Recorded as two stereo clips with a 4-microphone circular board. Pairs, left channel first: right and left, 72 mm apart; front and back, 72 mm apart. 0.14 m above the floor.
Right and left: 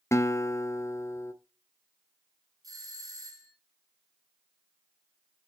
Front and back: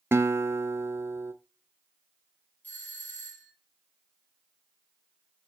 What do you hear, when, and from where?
0.1 s a guitar: 130° right, 0.8 m
2.6 s a doorbell: 65° left, 5 m